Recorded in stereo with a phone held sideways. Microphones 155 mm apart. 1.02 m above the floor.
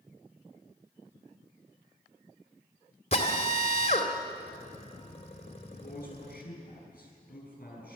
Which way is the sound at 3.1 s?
40° left (ahead or behind).